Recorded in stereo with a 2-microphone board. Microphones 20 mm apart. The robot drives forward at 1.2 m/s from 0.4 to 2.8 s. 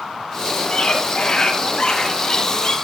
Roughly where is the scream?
Left.